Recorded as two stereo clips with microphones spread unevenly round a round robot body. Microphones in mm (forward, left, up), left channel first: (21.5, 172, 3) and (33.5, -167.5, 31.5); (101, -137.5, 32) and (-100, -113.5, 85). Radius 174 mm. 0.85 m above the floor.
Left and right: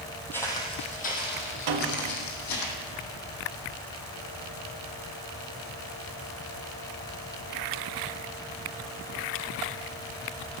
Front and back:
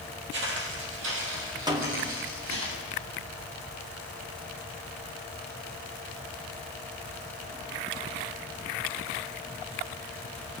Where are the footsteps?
Straight behind, 2 m; by 2.7 s 135° left, 3 m.